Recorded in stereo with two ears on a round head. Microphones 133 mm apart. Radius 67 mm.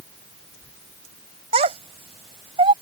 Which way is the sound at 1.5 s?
45° right (ahead or behind).